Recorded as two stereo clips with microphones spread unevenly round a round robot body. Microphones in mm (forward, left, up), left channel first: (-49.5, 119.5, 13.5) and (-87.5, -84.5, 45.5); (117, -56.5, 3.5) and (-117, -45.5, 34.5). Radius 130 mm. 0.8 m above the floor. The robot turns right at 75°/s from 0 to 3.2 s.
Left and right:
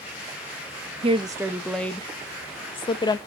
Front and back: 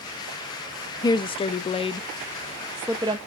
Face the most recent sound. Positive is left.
turn(degrees=115)